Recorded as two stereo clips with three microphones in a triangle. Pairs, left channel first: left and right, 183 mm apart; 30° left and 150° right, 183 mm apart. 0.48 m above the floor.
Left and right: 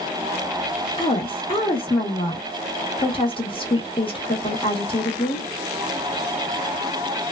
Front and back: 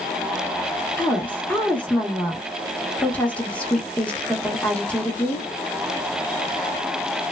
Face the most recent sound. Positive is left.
turn(degrees=105)